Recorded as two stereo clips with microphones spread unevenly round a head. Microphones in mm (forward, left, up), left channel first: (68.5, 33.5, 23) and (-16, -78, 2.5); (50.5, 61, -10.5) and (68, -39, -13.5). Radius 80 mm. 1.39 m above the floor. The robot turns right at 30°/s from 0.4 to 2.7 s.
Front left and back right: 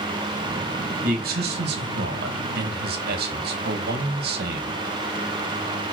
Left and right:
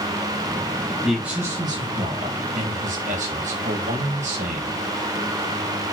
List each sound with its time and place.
1.0 s a man speaking: 170° right, 1.6 m; by 4.8 s 120° right, 1.6 m